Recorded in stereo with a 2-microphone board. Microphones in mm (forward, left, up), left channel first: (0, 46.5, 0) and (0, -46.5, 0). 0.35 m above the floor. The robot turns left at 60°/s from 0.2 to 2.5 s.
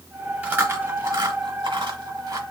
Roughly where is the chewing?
Centre.